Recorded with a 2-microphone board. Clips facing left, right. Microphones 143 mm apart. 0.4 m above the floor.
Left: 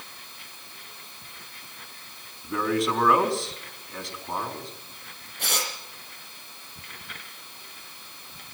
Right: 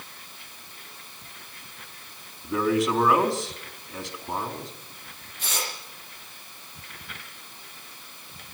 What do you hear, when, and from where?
2.4 s a man speaking: centre (ahead or behind), 4 m
5.4 s tearing paper: 65° left (ahead or behind), 6.5 m